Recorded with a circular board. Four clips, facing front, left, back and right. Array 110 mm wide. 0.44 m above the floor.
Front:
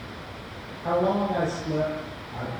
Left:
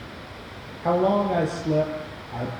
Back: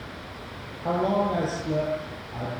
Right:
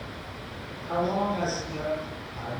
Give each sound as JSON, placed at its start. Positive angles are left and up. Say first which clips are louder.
{"t": 0.8, "sound": "a man speaking", "louder": "left 6 dB, even", "azimuth_deg": 95, "distance_m": 9.0}